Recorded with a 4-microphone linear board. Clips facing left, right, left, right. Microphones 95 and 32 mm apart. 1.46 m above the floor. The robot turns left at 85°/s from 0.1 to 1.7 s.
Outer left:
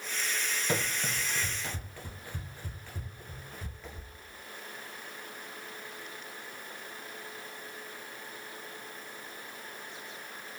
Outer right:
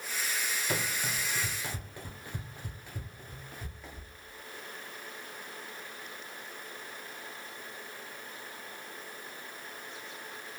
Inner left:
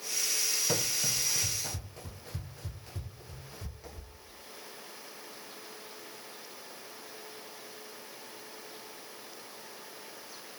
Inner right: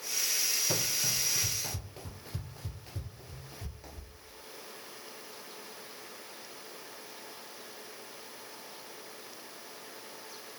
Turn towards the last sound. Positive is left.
turn(degrees=-5)  # may be behind; listen again after turning